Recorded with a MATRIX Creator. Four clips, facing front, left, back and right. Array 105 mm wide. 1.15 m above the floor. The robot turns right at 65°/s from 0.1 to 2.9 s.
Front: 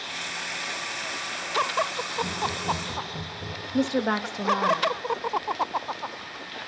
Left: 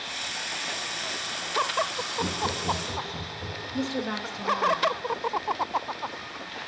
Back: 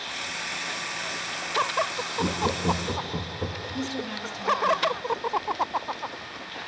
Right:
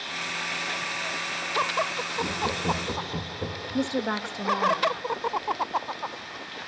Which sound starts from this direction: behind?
Laughter, at 2.2 s.